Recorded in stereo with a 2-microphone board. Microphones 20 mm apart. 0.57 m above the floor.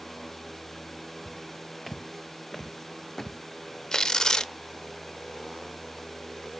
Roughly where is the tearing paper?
Left.